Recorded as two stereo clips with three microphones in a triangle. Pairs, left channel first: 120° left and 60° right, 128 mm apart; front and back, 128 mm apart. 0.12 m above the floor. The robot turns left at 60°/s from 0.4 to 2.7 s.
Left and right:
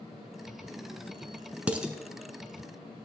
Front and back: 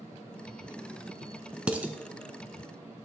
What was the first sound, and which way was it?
Dishes clattering, 115° right.